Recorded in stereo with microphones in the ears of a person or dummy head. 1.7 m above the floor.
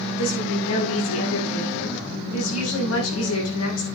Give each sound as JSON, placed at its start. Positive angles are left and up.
{"t": 0.2, "sound": "a woman speaking", "side_deg": 80, "distance_m": 7.0}